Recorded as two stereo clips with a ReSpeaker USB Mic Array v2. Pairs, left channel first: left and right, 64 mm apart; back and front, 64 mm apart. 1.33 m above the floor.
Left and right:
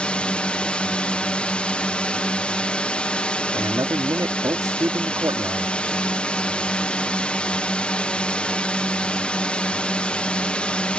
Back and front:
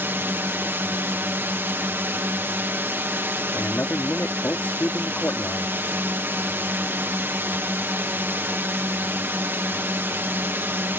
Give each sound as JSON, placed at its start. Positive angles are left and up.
{"t": 0.0, "sound": "a drone", "azimuth_deg": 30}
{"t": 3.5, "sound": "a man speaking", "azimuth_deg": -120}